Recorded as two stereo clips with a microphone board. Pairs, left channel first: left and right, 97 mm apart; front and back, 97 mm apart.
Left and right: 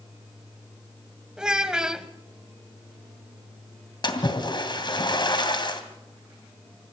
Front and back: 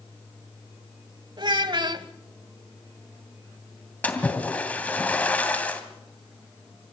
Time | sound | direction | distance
1.4 | a child speaking | 170° right | 1.4 m
4.0 | a splash | 70° left | 2.5 m